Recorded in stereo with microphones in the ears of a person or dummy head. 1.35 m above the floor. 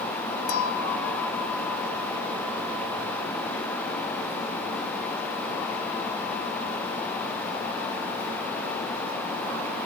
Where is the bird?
No bird in this recording.